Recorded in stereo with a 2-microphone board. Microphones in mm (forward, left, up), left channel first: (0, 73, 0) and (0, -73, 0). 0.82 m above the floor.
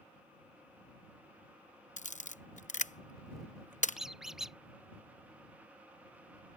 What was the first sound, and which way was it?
A camera shutter, 60° left (ahead or behind).